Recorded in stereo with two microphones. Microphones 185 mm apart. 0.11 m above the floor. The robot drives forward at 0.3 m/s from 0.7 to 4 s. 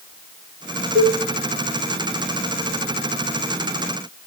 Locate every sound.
0.9 s a cowbell: 60° right (ahead or behind), 7 m